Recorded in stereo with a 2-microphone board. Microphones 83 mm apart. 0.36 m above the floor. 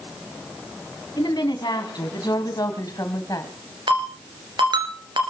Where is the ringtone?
70° right (ahead or behind), 2 m.